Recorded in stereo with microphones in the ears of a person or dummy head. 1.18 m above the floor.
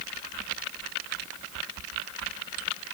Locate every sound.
Only background noise.